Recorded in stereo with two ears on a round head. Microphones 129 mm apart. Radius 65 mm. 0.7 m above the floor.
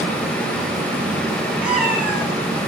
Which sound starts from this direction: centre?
A cat meowing, at 1.6 s.